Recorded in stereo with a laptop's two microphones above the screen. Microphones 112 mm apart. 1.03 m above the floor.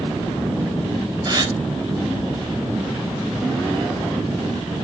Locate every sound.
1.2 s a gasp: 35° right (ahead or behind), 3 m